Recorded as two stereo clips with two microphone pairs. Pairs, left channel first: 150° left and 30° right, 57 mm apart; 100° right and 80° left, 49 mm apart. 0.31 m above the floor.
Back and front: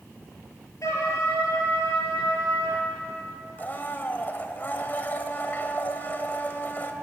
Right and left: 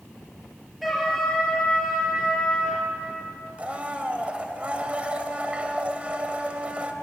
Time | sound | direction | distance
0.8 | a trumpet | 175° left | 5.5 m
3.6 | a blender | 130° left | 1.7 m